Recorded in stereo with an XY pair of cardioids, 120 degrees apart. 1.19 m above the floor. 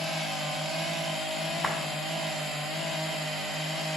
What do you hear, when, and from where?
1.6 s a clap: 10° left, 2.5 m